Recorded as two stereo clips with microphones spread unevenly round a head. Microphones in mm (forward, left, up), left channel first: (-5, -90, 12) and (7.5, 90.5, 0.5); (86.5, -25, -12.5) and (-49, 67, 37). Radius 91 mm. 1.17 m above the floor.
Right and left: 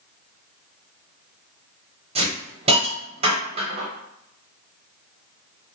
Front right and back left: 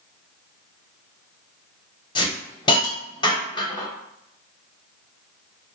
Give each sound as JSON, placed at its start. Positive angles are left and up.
{"t": 2.1, "sound": "a hiss", "azimuth_deg": 30, "distance_m": 0.8}